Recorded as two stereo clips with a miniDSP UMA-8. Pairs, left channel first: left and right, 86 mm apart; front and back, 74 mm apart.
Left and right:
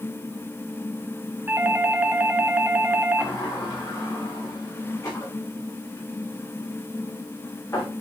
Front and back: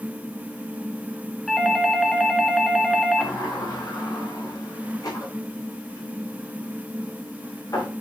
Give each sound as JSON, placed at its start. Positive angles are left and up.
{"t": 1.5, "sound": "a doorbell", "azimuth_deg": -80, "distance_m": 1.5}
{"t": 3.2, "sound": "a sliding door", "azimuth_deg": 40, "distance_m": 7.0}